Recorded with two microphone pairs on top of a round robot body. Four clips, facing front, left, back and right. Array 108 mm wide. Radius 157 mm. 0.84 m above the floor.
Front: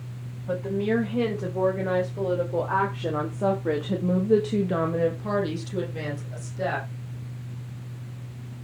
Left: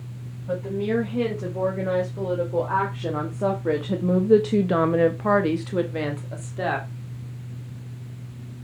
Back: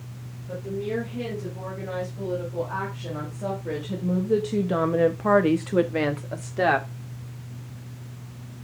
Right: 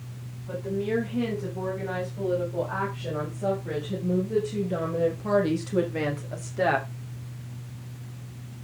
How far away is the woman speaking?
About 6 m.